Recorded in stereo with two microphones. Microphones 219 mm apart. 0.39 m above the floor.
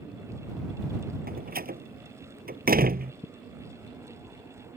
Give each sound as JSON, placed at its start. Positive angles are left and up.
{"t": 1.3, "sound": "a door slam", "side_deg": -45}